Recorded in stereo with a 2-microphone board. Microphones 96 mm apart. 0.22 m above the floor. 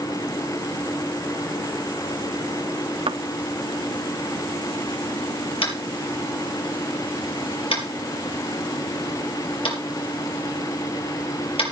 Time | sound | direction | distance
3.1 | a thud | 70° right (ahead or behind) | 0.7 m
5.6 | tapping | 70° left (ahead or behind) | 5 m